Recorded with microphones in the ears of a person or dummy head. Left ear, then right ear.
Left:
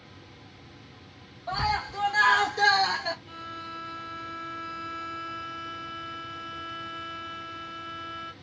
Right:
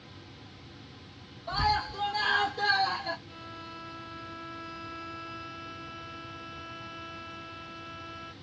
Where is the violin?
55° left (ahead or behind), 0.8 m.